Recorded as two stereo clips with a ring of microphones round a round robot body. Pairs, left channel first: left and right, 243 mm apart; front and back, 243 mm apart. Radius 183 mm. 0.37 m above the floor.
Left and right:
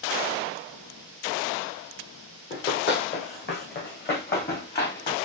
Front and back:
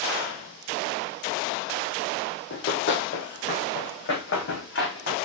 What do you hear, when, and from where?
2.5 s running footsteps: 45° left, 1.1 m; by 5.2 s 40° left, 2.5 m